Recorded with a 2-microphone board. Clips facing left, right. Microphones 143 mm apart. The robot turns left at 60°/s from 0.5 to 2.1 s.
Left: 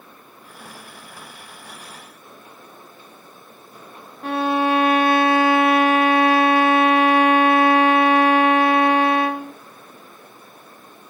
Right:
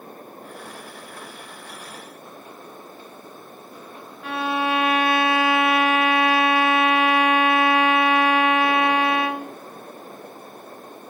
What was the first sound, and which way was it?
A violin, 40° left (ahead or behind).